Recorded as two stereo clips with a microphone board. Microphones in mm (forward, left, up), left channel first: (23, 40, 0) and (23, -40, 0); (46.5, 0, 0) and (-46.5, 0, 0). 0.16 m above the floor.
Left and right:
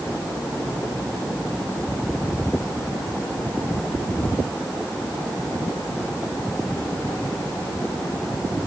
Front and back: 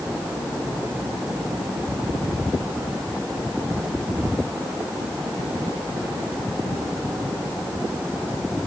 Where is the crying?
I don't hear crying.